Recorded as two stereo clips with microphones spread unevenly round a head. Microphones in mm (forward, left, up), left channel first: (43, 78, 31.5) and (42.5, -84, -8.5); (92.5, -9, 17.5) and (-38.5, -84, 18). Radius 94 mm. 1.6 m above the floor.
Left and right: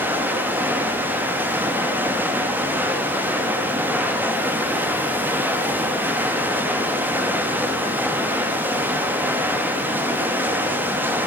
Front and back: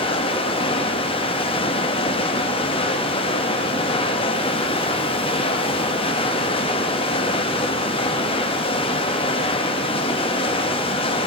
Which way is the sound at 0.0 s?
Straight ahead.